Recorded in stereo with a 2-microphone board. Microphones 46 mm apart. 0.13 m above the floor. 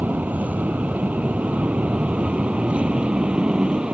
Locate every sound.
0.0 s an aircraft: 35° right (ahead or behind); by 4.0 s 20° right (ahead or behind)